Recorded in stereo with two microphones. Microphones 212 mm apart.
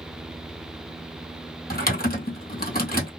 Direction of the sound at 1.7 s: 45° left (ahead or behind).